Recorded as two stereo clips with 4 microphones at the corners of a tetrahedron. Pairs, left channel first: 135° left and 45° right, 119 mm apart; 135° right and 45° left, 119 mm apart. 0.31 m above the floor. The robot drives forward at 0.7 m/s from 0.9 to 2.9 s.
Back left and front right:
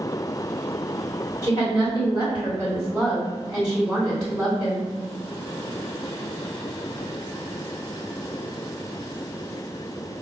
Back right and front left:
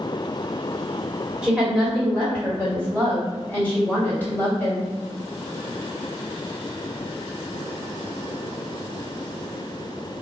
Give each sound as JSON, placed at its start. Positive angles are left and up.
{"t": 1.4, "sound": "a woman speaking", "azimuth_deg": 120, "distance_m": 1.4}